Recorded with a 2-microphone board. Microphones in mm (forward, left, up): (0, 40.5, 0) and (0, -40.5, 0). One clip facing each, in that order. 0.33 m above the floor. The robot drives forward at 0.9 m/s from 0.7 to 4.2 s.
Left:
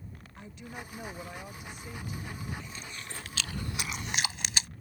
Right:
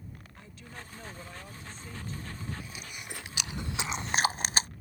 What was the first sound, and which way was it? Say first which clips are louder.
A woman speaking: left 6 dB; 20° left (ahead or behind).